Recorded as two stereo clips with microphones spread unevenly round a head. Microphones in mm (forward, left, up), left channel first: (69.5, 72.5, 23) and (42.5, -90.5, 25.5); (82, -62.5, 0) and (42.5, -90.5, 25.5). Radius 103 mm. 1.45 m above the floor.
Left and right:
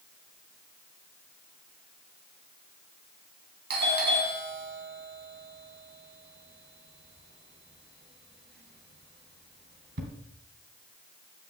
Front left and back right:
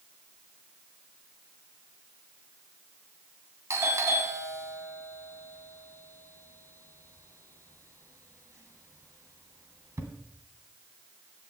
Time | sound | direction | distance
3.7 | a doorbell | 110° right | 2.5 m